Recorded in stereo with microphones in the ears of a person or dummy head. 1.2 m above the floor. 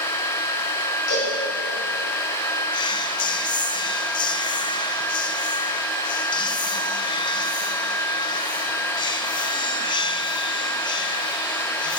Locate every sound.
1.1 s a cowbell: 85° left, 6.5 m
2.7 s whispering: 25° left (ahead or behind), 0.7 m